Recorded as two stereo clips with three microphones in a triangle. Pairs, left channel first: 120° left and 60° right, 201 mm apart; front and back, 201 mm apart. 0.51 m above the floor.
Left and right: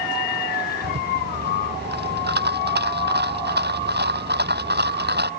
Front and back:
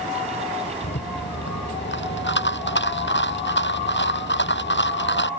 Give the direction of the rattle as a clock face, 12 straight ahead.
1 o'clock.